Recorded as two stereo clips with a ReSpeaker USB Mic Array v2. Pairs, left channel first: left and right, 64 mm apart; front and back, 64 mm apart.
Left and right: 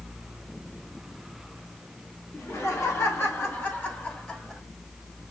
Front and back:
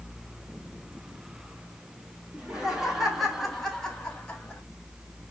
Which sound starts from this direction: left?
Laughter, at 2.3 s.